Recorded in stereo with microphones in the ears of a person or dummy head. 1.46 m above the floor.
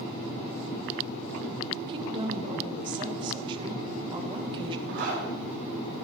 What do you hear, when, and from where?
1.9 s a woman speaking: 30° right (ahead or behind), 1.5 m
4.9 s a zipper: 60° right (ahead or behind), 5.5 m